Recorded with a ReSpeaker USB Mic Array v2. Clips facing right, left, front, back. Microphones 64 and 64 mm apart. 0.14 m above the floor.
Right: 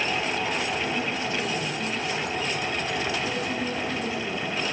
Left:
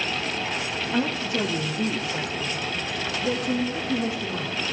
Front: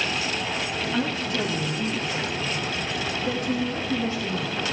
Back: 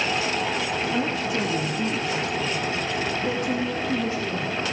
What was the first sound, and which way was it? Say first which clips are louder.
A woman speaking: left 3 dB, back 1 dB; 105° left.